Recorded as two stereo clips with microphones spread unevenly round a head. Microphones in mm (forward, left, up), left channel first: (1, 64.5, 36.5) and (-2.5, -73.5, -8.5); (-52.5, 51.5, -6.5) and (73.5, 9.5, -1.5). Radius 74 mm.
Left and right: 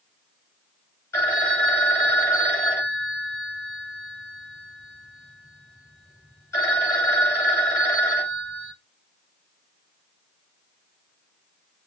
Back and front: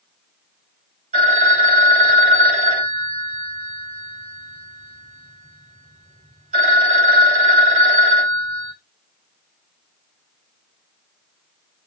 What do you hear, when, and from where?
1.1 s a phone ringing: 20° left, 2.5 m